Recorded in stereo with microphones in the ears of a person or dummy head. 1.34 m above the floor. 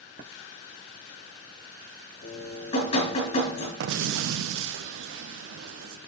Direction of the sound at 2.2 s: 40° left (ahead or behind).